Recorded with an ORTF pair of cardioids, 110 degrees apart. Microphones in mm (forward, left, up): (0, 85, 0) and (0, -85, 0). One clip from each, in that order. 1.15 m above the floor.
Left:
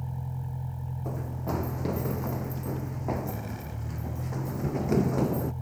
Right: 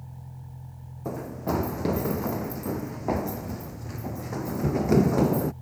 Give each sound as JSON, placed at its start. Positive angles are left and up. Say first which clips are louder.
{"t": 0.0, "sound": "a vehicle", "louder": "left 8 dB", "azimuth_deg": 45}
{"t": 1.1, "sound": "running footsteps", "louder": "right 5 dB", "azimuth_deg": -30}